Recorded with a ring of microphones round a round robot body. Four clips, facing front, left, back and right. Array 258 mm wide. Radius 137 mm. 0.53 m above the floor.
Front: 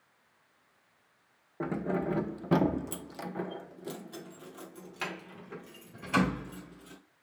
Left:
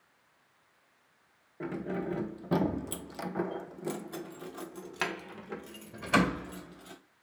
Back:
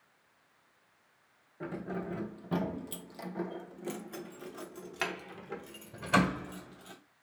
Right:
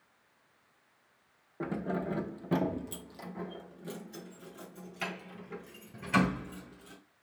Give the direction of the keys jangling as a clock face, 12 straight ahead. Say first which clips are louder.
Right 1 dB, front 6 dB; 1 o'clock.